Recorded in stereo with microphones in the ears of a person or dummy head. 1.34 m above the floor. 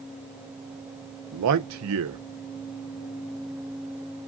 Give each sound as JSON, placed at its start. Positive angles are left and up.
{"t": 1.3, "sound": "a man speaking", "side_deg": -75, "distance_m": 0.6}